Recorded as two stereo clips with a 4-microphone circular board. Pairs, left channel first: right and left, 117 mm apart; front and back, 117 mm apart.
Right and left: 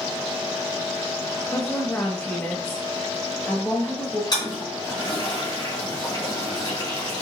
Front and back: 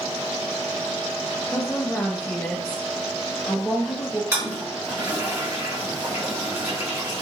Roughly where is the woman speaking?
Ahead right.